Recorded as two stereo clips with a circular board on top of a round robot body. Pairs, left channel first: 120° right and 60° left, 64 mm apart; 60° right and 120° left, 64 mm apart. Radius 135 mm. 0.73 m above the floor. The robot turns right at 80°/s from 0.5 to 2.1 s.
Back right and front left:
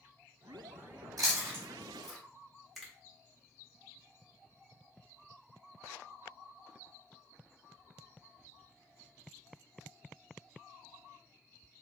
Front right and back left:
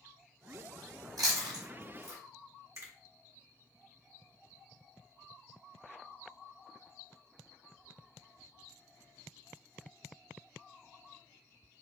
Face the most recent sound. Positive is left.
turn(degrees=150)